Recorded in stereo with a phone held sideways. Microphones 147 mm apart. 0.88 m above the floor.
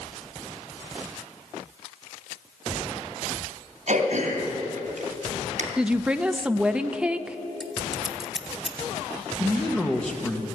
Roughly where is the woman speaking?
Centre.